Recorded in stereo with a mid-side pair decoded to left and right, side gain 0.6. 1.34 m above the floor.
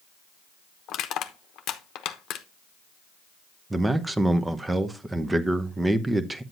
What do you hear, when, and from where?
0.9 s crushing: 60° left, 0.9 m
3.7 s a man speaking: 15° right, 0.9 m